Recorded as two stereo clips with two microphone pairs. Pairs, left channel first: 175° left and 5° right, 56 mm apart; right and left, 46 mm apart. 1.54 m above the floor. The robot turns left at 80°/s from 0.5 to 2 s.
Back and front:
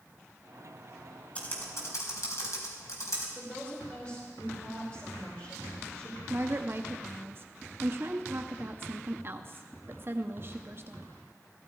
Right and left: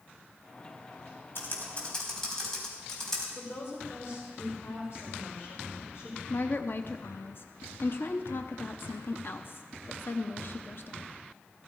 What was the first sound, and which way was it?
Typing on a keyboard, 120° right.